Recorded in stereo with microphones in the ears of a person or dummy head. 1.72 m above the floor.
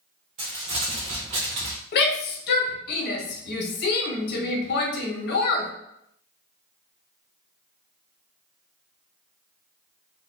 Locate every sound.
0.4 s crumpling: 25° right (ahead or behind), 0.9 m
1.9 s a shout: 65° left (ahead or behind), 1.3 m